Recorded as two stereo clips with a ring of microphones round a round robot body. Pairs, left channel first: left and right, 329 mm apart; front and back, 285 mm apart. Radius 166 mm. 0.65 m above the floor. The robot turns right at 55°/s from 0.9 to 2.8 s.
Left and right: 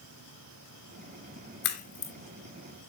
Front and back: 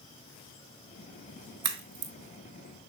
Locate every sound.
1.6 s a crack: 150° left, 2.5 m; by 2.1 s 175° left, 2.5 m